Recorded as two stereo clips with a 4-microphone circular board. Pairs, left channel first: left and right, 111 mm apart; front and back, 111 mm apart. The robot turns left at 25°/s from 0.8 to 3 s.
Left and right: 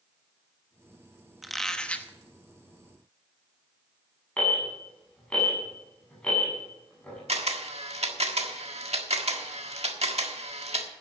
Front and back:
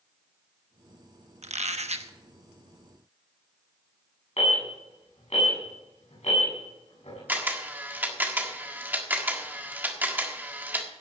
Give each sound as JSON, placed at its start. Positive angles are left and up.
{"t": 1.4, "sound": "a squeak", "azimuth_deg": 180, "distance_m": 1.0}
{"t": 4.4, "sound": "an alarm", "azimuth_deg": 10, "distance_m": 7.5}
{"t": 7.3, "sound": "a camera shutter", "azimuth_deg": -110, "distance_m": 1.5}